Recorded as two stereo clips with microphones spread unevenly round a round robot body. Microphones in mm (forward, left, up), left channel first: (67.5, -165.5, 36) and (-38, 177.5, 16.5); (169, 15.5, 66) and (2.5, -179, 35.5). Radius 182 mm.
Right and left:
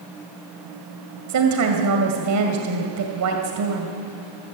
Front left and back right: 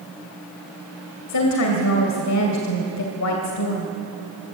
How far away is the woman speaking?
About 2.5 m.